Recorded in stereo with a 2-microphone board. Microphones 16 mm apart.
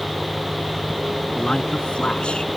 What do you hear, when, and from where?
0.0 s an engine running: 45° right (ahead or behind)
1.4 s a man speaking: 80° left